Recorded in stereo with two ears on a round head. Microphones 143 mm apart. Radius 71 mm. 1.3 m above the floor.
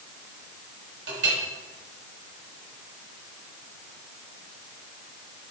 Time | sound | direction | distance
1.1 | a clink | 75° right (ahead or behind) | 3.5 m